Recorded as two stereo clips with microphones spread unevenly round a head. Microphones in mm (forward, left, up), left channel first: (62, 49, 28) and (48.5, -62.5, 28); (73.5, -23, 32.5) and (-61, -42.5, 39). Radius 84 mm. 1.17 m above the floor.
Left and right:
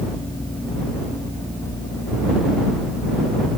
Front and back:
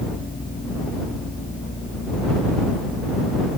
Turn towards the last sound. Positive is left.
No sound to turn to.